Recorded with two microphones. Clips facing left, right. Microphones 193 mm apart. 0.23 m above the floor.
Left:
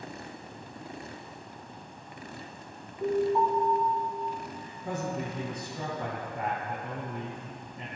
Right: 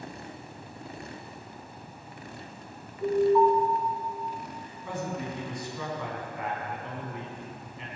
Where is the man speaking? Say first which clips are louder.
Left 1 dB; 45° left (ahead or behind), 2 m.